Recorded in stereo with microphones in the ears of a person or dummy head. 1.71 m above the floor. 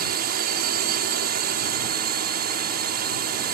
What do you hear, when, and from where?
0.0 s a drone: 55° right (ahead or behind)